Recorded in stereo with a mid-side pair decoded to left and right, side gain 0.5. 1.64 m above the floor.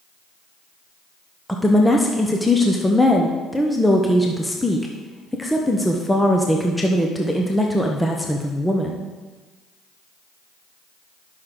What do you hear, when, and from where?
1.5 s a woman speaking: 5° left, 1.1 m